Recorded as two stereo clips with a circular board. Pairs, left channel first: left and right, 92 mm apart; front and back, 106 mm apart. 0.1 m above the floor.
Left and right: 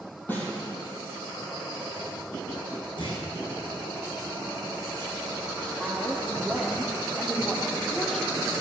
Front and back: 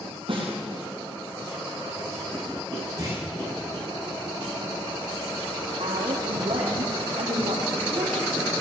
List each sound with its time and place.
0.3 s a snare drum: 155° left, 4 m
3.0 s a clunk: 120° left, 5 m
5.8 s a woman speaking: 175° left, 3 m